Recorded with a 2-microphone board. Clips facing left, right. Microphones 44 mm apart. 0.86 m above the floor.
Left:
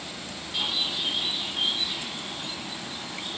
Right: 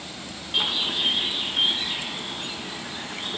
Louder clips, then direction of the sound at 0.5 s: Right 4 dB; 55° right (ahead or behind).